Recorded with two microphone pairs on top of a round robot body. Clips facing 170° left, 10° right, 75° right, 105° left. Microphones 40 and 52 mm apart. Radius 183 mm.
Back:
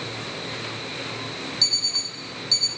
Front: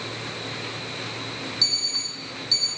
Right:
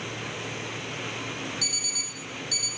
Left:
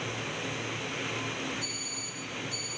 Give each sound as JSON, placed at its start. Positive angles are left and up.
{"t": 1.6, "sound": "an alarm clock", "azimuth_deg": -95, "distance_m": 2.0}